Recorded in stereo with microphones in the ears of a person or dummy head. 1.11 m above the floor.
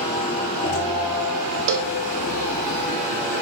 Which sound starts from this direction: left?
A machine running, at 0.0 s.